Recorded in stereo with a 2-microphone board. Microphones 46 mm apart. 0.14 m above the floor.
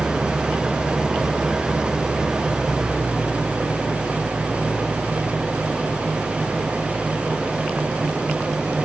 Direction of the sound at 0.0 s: 10° right (ahead or behind).